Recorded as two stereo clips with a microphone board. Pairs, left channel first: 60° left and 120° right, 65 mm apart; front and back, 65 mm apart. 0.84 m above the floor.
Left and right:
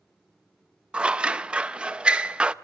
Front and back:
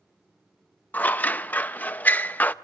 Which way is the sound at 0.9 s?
55° right.